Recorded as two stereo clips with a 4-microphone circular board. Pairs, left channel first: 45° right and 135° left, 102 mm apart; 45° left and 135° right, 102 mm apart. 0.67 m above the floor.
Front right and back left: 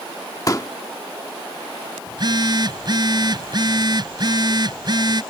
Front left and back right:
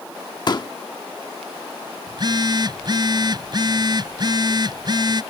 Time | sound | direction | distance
0.5 | a pop | 5° left | ?
2.1 | a phone buzzing | straight behind | ?